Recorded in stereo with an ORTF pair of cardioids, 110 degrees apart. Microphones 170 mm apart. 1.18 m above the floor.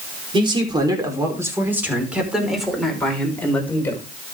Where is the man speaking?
30° right, 4.5 m; by 4.0 s 10° left, 5.5 m.